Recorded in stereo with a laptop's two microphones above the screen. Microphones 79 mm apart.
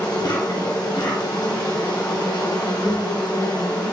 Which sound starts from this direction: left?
An insect, at 0.0 s.